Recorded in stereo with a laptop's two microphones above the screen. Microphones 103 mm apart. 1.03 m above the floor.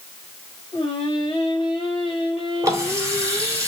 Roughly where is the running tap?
Right.